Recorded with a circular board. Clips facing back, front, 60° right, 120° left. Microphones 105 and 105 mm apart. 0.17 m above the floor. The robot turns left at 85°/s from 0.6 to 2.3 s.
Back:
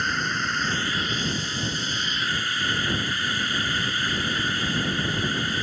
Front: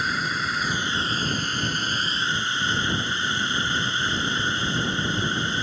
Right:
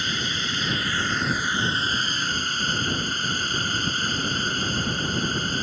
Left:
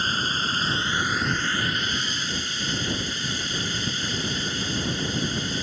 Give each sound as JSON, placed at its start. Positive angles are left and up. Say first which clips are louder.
{"t": 0.0, "sound": "a drone", "louder": "even, left 2 dB", "azimuth_deg": 85}